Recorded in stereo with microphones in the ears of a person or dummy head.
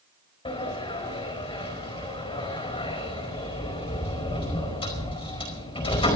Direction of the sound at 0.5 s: 25° left (ahead or behind).